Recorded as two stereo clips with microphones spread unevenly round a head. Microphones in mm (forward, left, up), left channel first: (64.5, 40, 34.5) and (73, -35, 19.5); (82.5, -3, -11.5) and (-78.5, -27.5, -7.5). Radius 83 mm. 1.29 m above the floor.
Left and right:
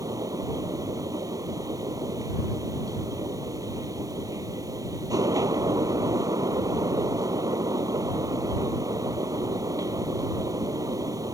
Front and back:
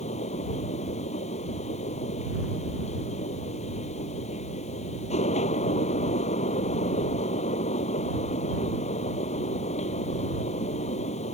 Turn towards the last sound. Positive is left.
turn(degrees=-40)